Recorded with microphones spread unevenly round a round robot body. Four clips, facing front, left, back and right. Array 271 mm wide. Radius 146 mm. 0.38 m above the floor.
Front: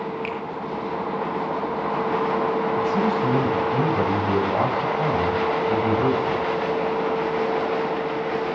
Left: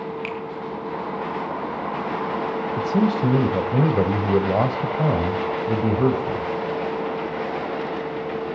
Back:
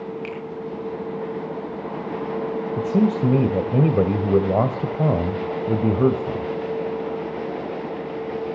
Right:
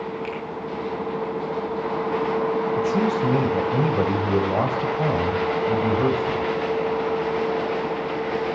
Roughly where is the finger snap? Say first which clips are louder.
Even, front 2 dB; left.